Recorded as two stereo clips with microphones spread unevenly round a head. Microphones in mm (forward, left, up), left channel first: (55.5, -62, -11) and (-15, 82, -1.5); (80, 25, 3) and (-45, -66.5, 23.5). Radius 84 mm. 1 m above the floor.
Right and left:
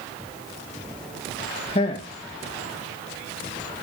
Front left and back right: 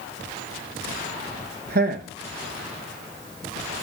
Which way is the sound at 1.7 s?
115° right.